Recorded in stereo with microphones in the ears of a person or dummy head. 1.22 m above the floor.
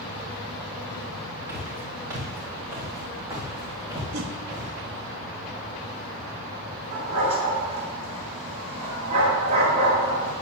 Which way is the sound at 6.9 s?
35° right (ahead or behind).